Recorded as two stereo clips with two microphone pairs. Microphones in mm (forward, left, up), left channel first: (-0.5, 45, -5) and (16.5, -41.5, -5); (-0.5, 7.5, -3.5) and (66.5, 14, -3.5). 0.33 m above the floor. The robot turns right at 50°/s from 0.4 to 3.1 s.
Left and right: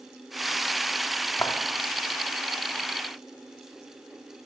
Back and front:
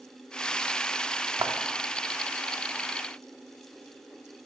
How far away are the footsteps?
About 1.5 m.